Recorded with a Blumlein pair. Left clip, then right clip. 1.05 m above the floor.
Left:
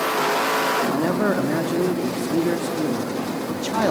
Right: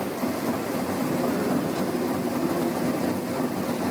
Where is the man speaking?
45° left, 2.5 m.